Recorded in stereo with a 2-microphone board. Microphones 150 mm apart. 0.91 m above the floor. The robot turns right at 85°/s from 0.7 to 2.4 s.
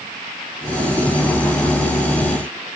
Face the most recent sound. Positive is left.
No sound to turn to.